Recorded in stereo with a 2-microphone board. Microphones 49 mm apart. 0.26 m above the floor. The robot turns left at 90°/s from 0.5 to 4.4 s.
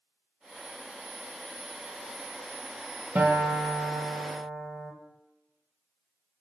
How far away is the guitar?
About 1.6 m.